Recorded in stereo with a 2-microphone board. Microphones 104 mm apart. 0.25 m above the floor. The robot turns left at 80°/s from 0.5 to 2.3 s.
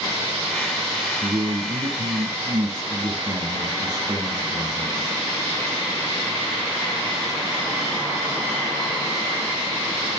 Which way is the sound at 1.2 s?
30° right.